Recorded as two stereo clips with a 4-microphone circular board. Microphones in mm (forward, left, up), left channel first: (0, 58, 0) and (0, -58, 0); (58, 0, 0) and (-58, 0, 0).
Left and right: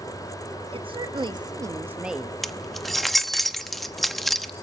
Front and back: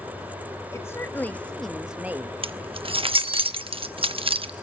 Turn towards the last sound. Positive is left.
turn(degrees=180)